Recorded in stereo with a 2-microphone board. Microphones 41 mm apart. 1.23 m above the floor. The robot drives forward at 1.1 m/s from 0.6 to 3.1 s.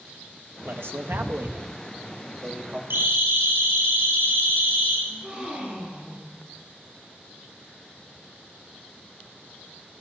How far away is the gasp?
About 6.5 m.